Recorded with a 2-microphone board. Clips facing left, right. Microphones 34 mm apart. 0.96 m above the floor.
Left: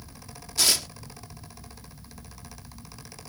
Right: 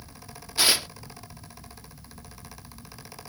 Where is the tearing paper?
25° right (ahead or behind).